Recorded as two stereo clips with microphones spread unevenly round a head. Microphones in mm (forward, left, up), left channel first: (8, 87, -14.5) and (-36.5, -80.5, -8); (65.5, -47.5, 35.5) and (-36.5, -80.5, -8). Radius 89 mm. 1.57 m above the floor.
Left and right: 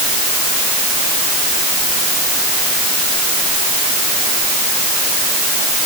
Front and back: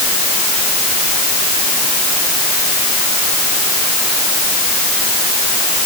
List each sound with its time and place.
Only background noise.